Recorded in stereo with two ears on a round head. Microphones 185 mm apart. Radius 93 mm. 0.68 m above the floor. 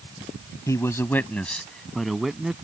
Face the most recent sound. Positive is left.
turn(degrees=-5)  # may be behind; listen again after turning